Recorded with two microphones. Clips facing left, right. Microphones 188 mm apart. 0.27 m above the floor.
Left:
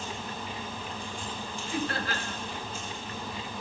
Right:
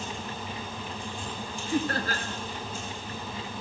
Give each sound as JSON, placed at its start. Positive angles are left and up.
{"t": 1.7, "sound": "laughter", "side_deg": -40, "distance_m": 4.0}